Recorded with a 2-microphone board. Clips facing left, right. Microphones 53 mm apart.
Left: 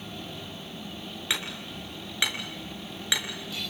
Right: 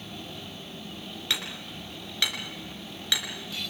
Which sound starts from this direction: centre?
Hammering, at 1.3 s.